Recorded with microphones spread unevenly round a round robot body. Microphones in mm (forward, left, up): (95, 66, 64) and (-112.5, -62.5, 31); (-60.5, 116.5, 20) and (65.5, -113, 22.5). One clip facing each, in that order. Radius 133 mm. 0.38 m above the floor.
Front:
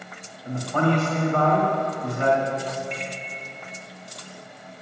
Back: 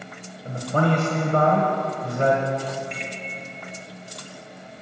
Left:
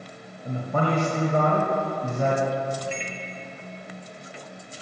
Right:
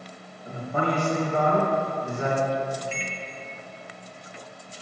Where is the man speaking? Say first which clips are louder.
Even, left 2 dB; 160° left, 1.8 m.